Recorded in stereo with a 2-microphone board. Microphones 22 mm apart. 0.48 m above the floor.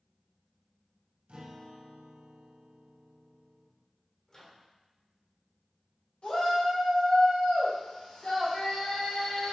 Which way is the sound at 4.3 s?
30° left (ahead or behind).